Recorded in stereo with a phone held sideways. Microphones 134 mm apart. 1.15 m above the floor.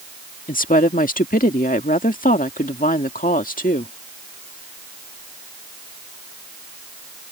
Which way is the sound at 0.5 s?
75° left (ahead or behind).